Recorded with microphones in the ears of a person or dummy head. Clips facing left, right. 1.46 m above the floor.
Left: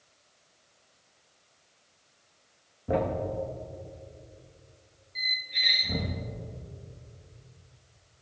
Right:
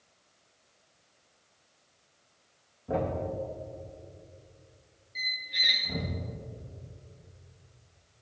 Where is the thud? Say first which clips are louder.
Left 3 dB; 25° left (ahead or behind), 0.8 m.